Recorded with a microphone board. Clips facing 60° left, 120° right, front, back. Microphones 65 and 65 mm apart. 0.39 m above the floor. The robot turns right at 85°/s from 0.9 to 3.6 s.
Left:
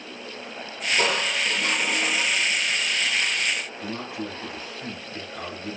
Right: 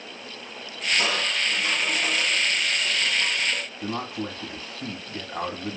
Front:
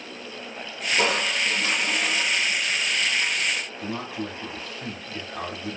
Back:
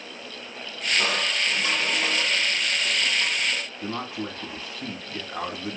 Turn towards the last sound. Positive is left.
turn(degrees=-115)